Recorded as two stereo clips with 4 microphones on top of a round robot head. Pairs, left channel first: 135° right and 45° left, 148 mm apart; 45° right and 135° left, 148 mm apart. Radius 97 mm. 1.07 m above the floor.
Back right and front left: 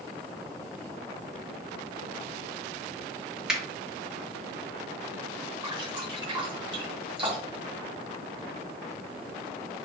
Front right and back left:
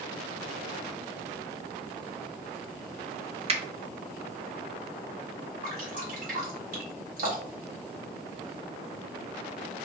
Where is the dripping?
105° left, 1.3 m.